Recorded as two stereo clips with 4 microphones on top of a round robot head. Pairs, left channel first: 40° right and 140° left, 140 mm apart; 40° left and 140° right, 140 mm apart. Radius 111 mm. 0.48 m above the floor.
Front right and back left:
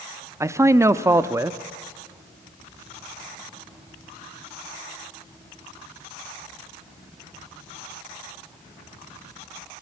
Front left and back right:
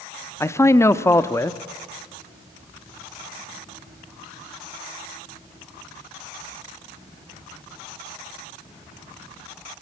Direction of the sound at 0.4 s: 90° left.